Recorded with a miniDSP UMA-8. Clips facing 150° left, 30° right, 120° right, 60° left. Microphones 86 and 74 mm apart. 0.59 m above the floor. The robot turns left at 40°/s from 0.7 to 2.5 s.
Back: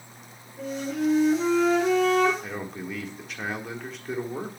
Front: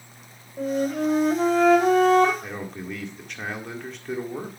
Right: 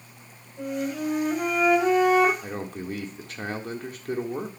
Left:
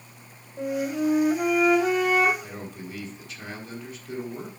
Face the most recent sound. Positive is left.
turn(degrees=-120)